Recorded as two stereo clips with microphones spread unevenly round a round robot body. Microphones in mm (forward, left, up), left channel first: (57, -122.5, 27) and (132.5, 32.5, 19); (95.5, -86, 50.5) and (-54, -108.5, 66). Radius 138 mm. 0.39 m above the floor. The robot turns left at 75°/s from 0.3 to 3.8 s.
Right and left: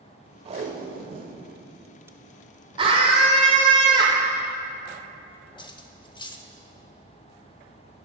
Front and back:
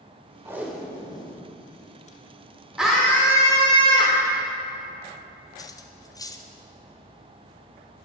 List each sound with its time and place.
0.5 s tape being pulled: 115° left, 0.8 m; by 3.0 s 80° right, 0.8 m
2.8 s a scream: 100° left, 1.0 m; by 4.2 s 20° left, 1.0 m
5.6 s cutlery clinking: 50° right, 1.0 m